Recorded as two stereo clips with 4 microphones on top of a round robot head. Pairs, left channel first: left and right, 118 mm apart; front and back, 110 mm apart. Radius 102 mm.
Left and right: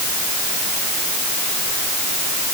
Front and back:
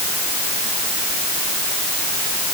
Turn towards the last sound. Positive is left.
No sound to turn to.